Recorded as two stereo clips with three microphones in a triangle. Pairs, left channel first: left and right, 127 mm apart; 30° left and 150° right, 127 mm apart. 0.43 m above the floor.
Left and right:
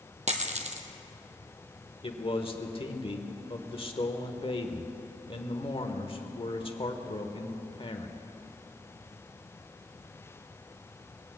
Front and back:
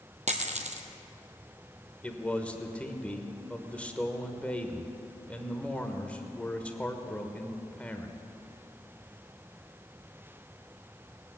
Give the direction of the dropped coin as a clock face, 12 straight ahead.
4 o'clock.